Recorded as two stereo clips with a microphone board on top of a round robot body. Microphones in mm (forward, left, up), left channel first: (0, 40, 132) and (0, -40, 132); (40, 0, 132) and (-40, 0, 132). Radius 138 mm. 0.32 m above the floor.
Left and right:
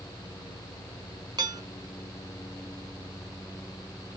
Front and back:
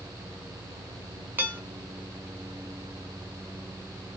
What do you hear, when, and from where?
1.4 s dishes clattering: 115° right, 1.5 m